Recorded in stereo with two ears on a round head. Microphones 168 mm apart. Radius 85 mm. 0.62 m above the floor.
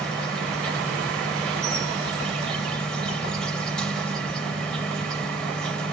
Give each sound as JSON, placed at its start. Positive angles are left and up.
{"t": 0.0, "sound": "an insect", "side_deg": 5, "distance_m": 2.5}